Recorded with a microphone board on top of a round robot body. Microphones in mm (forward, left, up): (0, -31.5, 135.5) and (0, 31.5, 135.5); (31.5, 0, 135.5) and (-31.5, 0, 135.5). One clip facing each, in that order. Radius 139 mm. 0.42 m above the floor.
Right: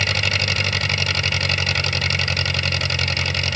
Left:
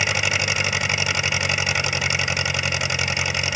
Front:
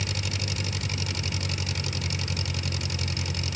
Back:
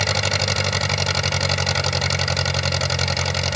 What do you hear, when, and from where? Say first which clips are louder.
0.0 s an engine running: even, back 12 dB; 165° left